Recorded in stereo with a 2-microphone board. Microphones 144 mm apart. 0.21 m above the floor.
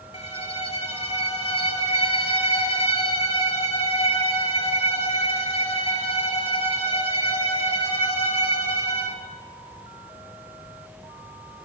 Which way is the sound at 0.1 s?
45° left (ahead or behind).